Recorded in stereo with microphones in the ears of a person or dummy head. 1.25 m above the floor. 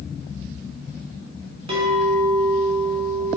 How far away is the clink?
About 0.6 m.